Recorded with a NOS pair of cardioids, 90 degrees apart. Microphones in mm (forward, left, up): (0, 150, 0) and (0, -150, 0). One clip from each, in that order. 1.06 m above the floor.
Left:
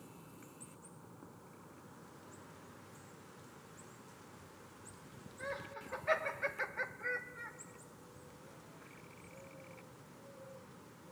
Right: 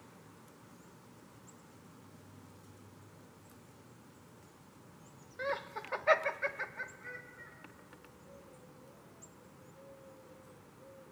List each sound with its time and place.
5.4 s laughter: 60° right, 1.2 m; by 7.5 s 55° left, 1.1 m